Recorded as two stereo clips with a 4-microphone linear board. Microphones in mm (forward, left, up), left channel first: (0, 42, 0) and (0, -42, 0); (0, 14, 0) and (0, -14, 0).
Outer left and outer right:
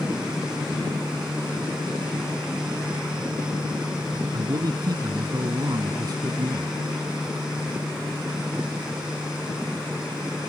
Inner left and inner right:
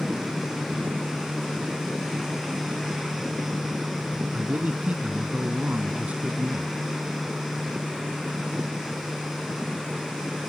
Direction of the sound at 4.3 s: 50° right (ahead or behind).